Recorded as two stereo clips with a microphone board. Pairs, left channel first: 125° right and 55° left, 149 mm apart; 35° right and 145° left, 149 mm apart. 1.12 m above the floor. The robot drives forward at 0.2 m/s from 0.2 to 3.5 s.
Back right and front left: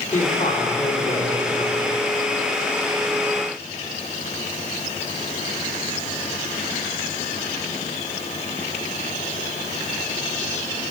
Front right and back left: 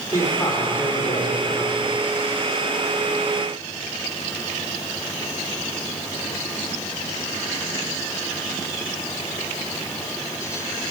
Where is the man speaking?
100° right, 3 m; by 1.8 s 105° right, 3 m.